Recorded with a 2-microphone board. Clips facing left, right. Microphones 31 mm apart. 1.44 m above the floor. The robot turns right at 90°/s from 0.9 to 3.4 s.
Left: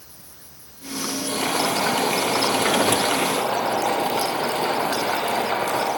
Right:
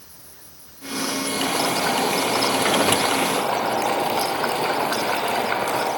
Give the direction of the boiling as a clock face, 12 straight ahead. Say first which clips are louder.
Left 1 dB; 10 o'clock.